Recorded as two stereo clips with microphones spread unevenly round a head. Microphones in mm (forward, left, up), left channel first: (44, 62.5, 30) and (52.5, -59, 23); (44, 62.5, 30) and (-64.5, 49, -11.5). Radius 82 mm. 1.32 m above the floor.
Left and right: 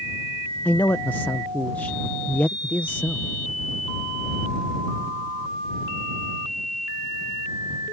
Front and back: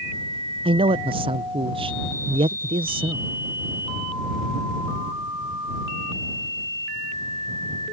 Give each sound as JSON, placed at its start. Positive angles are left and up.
{"t": 0.7, "sound": "a man speaking", "azimuth_deg": 175}